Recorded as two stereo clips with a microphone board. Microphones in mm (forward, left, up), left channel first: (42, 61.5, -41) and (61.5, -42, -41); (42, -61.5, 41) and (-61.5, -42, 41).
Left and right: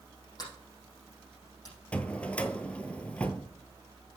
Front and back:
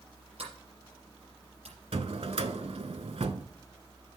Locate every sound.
0.4 s a sliding door: 155° left, 5 m
1.9 s a drawer: 175° left, 0.6 m